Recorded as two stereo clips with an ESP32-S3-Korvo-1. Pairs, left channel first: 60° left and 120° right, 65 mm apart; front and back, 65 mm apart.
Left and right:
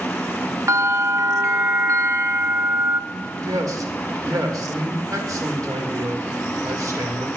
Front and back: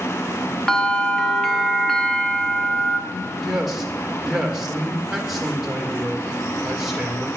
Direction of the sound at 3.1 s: 95° right.